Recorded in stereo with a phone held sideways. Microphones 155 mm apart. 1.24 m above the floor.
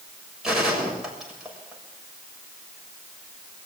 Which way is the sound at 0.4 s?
5° right (ahead or behind).